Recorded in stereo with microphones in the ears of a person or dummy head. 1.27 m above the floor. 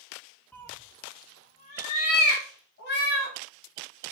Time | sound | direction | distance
0.5 | a cat meowing | 5° left (ahead or behind) | 0.6 m